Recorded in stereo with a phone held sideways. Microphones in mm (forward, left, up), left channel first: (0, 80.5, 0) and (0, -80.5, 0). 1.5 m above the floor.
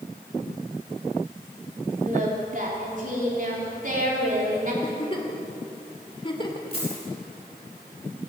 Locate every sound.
2.0 s singing: 60° right (ahead or behind), 4 m
4.8 s a giggle: 30° left (ahead or behind), 2.5 m
6.7 s a dropped coin: 35° left (ahead or behind), 8.5 m